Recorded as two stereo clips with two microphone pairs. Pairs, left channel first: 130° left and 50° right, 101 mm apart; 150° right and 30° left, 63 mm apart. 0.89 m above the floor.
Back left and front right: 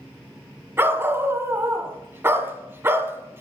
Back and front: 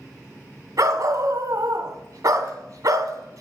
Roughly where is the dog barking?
Ahead.